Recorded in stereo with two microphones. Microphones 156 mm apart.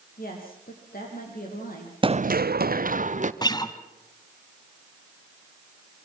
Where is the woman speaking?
70° left (ahead or behind), 7.5 m.